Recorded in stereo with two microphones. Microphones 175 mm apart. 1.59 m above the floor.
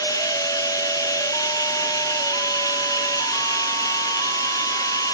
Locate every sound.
0.0 s running water: 20° left (ahead or behind), 1.5 m